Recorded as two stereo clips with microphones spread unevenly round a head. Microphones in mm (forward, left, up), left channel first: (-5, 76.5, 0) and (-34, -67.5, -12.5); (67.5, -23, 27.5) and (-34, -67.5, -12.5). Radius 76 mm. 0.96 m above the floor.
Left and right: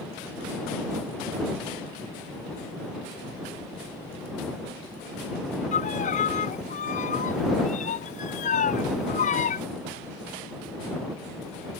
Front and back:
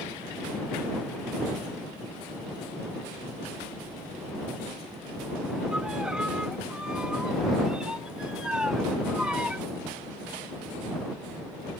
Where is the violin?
115° left.